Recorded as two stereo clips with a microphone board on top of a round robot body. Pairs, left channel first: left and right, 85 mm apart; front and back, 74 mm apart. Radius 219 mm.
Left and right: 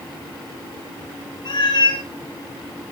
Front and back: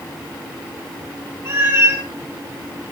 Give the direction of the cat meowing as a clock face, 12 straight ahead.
8 o'clock.